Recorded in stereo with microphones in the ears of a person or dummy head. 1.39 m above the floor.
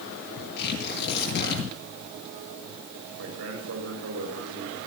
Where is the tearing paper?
65° left (ahead or behind), 9.5 m.